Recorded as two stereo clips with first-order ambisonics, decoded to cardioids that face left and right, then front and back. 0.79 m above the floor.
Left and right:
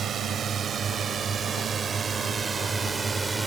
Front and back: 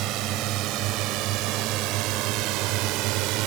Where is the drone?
150° right; by 3.5 s 170° right.